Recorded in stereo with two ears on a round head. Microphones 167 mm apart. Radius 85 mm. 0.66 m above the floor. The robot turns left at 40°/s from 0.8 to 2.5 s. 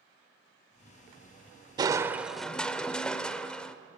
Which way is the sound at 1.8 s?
25° right (ahead or behind).